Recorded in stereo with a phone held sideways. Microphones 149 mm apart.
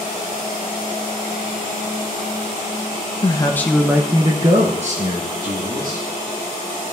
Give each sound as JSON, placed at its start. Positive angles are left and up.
{"t": 3.2, "sound": "a man speaking", "side_deg": 30, "distance_m": 0.7}